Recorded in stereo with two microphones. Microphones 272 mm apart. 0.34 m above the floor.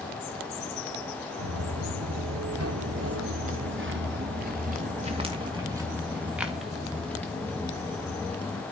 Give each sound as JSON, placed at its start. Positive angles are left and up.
{"t": 1.4, "sound": "footsteps", "side_deg": -80, "distance_m": 2.0}